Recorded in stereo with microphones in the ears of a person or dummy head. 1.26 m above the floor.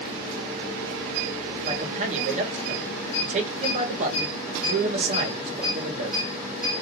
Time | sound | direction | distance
1.6 | a man speaking | 40° right (ahead or behind) | 1.3 m